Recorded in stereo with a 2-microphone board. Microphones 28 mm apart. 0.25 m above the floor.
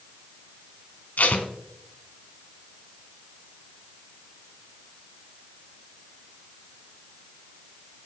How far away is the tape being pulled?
About 1.3 m.